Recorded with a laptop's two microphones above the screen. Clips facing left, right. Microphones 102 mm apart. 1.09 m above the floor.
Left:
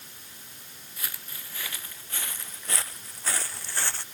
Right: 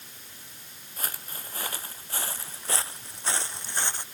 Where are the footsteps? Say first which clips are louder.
Right 4 dB; 45° right (ahead or behind); by 4.0 s 20° right (ahead or behind).